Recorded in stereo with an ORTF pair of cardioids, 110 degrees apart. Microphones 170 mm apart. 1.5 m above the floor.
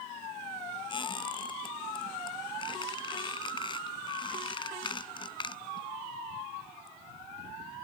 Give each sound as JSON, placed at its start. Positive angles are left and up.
{"t": 0.9, "sound": "a squeak", "azimuth_deg": 30}